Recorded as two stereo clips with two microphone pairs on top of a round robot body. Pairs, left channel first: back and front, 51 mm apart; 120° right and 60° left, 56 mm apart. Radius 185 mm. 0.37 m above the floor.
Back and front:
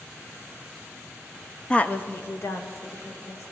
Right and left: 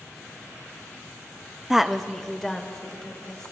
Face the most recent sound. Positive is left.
turn(degrees=160)